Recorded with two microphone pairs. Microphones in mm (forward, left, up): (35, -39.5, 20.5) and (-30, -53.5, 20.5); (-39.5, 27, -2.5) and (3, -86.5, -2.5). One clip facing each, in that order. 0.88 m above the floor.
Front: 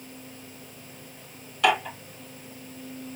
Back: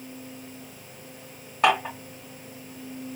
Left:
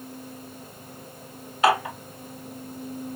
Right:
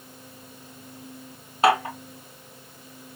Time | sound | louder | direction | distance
1.6 | dishes clattering | back 1 dB, right 1 dB | 125° right | 2.5 m